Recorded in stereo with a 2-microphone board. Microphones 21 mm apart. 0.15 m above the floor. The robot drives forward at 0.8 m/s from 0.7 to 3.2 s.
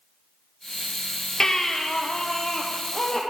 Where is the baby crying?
25° left (ahead or behind), 1.8 m; by 3.2 s 15° left (ahead or behind), 3 m.